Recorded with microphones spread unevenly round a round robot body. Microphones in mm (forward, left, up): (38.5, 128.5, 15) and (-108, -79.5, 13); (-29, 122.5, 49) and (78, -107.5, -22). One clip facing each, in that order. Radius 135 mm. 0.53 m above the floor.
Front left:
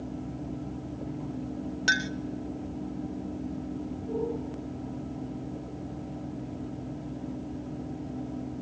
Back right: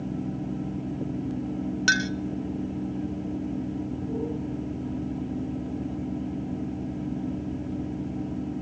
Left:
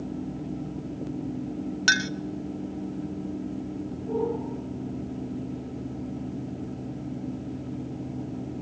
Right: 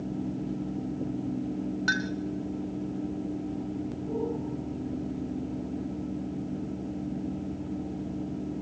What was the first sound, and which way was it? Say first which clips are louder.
A clink: back right 4 dB, even; 160° left.